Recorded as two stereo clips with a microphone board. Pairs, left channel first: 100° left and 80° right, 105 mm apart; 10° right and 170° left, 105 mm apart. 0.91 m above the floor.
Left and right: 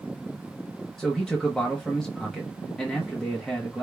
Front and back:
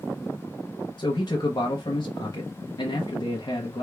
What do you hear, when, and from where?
1.0 s a man speaking: 15° left, 0.8 m